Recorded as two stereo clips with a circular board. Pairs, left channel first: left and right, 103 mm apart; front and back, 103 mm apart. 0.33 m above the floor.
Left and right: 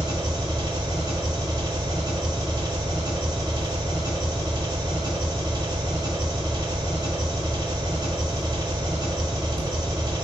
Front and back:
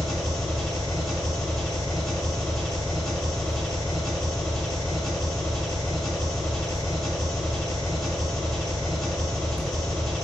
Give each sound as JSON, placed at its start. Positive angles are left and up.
{"t": 0.0, "sound": "an engine running", "azimuth_deg": -90, "distance_m": 1.4}